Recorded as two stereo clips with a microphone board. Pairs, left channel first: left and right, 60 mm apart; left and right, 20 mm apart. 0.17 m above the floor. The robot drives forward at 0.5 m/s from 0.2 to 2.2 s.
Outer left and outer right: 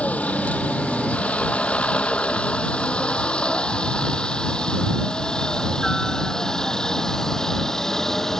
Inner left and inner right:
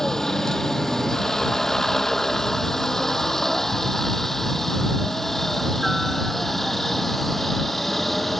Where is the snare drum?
No snare drum in this recording.